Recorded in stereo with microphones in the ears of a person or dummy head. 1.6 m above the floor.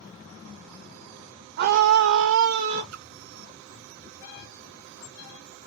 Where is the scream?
50° right (ahead or behind), 0.6 m; by 2.8 s 60° right (ahead or behind), 1.2 m.